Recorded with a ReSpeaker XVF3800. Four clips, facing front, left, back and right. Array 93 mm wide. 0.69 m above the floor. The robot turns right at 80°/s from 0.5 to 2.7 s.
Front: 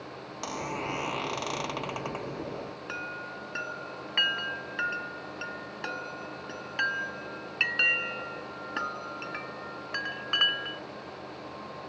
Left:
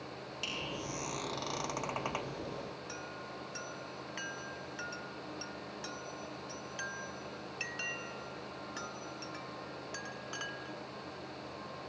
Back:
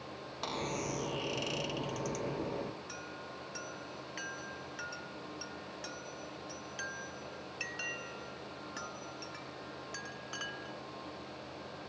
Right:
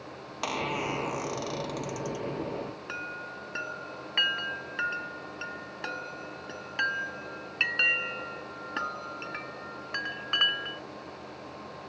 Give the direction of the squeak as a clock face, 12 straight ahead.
3 o'clock.